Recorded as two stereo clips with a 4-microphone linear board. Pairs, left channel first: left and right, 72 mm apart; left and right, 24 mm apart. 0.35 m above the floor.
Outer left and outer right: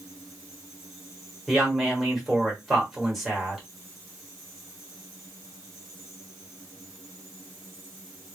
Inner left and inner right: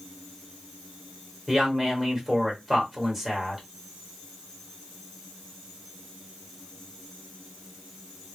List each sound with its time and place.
1.5 s a woman speaking: 5° left (ahead or behind), 1.3 m